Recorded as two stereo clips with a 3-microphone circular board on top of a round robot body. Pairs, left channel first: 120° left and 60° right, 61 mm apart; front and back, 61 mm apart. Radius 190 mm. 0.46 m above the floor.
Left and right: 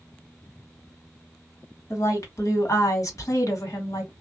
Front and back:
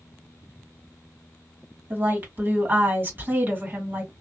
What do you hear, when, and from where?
1.9 s a woman speaking: 125° left, 1.8 m